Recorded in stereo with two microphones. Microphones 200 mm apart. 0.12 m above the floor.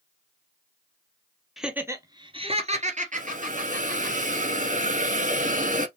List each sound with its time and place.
1.6 s laughter: centre (ahead or behind), 1.1 m; by 4.1 s 45° right (ahead or behind), 3 m
3.1 s a hiss: 40° right (ahead or behind), 0.8 m